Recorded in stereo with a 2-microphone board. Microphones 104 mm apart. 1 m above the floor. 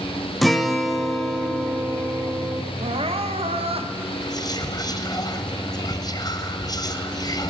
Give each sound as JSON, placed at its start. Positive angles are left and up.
{"t": 0.4, "sound": "a guitar", "side_deg": 0, "distance_m": 0.8}
{"t": 2.8, "sound": "crying", "side_deg": -70, "distance_m": 0.7}
{"t": 4.2, "sound": "whispering", "side_deg": 40, "distance_m": 0.9}